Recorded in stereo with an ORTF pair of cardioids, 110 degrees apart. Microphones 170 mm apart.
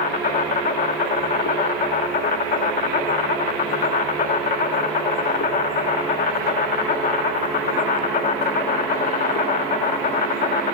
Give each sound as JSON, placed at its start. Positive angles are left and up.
{"t": 0.0, "sound": "an insect", "azimuth_deg": 55, "distance_m": 1.2}